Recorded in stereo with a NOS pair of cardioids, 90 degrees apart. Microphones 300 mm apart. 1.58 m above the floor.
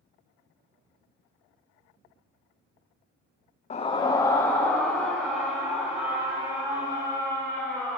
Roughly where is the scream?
Ahead left.